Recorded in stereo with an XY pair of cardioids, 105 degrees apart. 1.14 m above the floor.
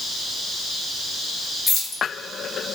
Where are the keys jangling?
60° left, 1.6 m.